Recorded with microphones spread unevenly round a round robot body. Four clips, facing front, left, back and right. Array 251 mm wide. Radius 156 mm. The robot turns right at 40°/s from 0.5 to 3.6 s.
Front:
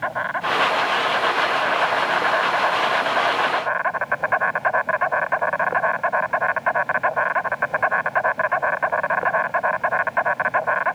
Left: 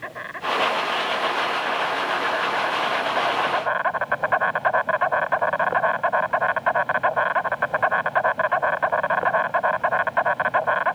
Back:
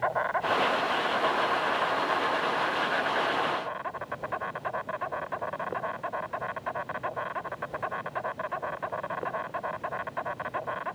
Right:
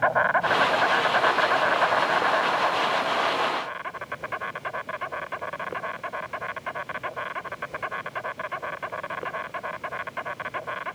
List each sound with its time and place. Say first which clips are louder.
0.0 s an insect: right 9 dB, front 3 dB; 80° right; by 10.9 s 45° left